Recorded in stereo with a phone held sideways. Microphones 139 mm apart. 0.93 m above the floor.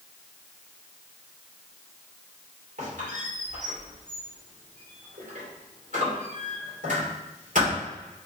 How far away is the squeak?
About 2 m.